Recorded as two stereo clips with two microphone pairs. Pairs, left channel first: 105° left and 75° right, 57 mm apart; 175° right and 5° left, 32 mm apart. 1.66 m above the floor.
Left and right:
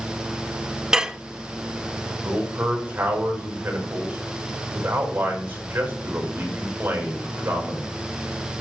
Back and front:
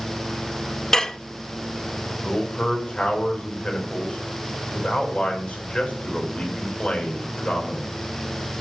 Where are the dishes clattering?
135° right, 0.6 m.